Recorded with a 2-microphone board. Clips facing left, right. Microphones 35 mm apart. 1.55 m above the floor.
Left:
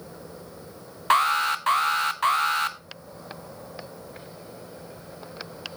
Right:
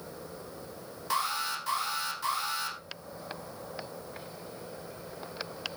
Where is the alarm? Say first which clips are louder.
Left 11 dB; 55° left (ahead or behind), 1.1 m.